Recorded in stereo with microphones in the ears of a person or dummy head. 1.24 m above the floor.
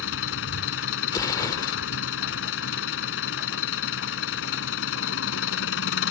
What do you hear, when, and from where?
0.0 s an engine running: 80° left
1.1 s an explosion: 20° left (ahead or behind)